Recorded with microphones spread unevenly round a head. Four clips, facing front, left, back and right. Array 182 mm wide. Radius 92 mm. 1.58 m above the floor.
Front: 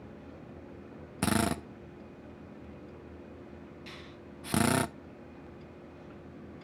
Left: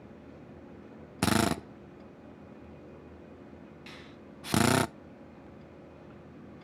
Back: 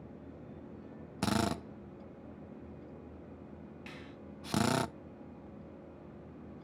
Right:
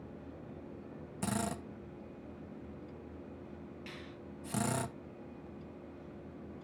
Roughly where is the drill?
Ahead left.